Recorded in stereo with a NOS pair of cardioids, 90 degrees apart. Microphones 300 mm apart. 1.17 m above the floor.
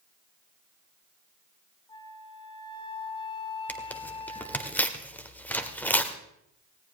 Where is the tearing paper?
5° left, 1.9 m.